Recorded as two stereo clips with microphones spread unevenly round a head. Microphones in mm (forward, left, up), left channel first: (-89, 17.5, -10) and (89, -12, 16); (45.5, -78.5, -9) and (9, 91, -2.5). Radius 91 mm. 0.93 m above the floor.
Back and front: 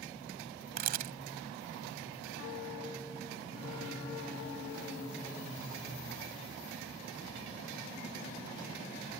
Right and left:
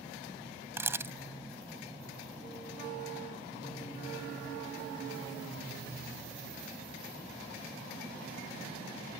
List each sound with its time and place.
0.8 s a camera shutter: 25° left